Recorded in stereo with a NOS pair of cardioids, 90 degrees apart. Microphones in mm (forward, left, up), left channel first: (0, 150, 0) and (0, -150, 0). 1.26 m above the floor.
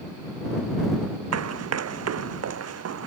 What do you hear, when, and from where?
1.3 s running footsteps: 55° right